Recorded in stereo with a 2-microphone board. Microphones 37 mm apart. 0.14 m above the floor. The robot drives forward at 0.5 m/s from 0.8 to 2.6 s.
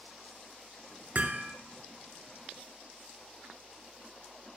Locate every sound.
1.1 s hammering: 45° right (ahead or behind), 1.4 m